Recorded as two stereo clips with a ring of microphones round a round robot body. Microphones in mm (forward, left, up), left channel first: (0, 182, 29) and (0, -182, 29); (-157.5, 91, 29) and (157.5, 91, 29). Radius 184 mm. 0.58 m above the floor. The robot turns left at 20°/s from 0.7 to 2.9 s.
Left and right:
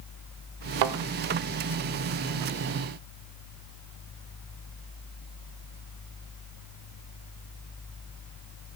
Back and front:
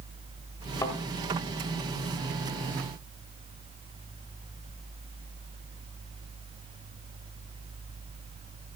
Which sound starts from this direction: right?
A thud, at 0.8 s.